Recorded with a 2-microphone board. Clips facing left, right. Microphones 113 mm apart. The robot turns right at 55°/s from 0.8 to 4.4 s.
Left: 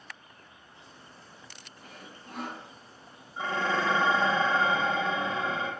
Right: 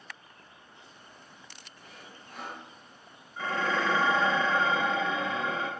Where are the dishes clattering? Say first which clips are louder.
Left 1 dB; 40° left, 0.9 m; by 5.7 s 95° left, 0.9 m.